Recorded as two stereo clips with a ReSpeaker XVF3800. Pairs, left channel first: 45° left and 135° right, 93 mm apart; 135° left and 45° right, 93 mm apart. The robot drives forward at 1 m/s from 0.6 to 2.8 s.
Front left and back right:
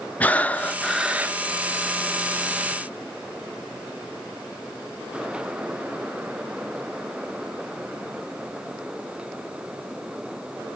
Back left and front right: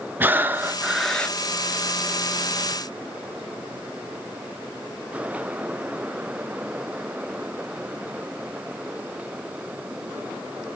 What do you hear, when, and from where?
0.2 s breathing: 5° right, 0.8 m; by 1.4 s 175° right, 0.8 m